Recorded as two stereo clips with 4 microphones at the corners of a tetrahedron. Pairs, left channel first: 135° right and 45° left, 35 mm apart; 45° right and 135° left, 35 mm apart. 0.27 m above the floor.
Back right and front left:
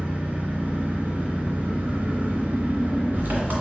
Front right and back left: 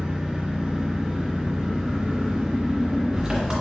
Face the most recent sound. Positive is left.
turn(degrees=65)